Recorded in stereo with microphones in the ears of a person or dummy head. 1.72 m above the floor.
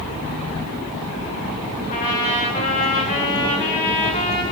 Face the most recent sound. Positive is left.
turn(degrees=35)  # may be behind; listen again after turning